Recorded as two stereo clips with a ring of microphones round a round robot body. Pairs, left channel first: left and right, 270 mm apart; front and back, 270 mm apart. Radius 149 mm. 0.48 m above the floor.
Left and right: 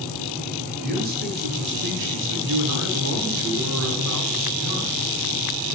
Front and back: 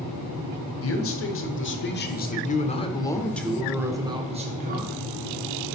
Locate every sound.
0.8 s a man speaking: 30° right, 1.7 m; by 5.8 s 140° right, 1.6 m